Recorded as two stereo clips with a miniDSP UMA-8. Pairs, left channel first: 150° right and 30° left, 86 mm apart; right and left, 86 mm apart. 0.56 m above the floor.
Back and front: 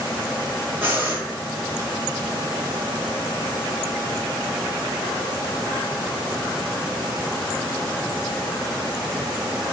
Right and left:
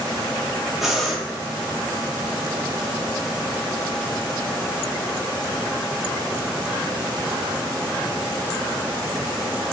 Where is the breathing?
5° left, 0.8 m.